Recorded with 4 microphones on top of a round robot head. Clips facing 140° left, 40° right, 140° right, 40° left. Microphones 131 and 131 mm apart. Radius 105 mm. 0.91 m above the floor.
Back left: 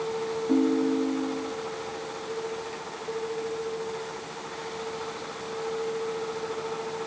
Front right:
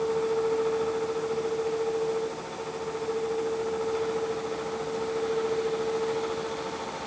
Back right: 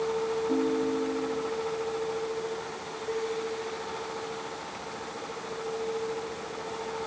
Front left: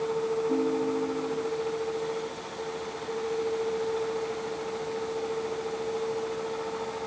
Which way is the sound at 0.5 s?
130° left.